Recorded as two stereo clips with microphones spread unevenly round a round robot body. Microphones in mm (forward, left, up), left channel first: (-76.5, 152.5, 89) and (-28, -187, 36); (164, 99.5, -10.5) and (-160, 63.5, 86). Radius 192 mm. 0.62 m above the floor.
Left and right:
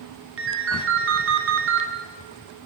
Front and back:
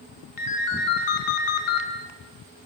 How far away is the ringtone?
About 3 m.